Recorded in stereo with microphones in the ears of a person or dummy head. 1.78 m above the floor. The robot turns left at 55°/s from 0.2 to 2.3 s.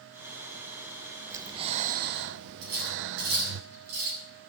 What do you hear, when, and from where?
1.3 s breathing: 15° right, 0.6 m; by 3.6 s 70° right, 0.6 m
2.6 s cutlery clinking: 80° right, 7.5 m